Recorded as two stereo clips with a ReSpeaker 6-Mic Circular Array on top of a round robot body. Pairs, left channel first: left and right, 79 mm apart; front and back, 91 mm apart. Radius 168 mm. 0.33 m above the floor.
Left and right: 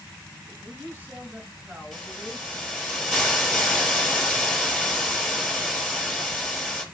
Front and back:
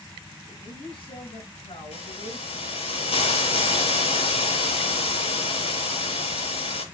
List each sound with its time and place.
0.5 s a man speaking: 20° right, 7 m; by 2.5 s 15° right, 6 m
1.9 s a hiss: straight ahead, 6.5 m